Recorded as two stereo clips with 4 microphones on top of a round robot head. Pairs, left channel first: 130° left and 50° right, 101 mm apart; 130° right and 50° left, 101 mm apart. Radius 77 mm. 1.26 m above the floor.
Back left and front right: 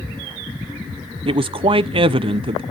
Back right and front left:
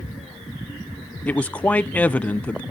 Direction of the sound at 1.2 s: 55° right.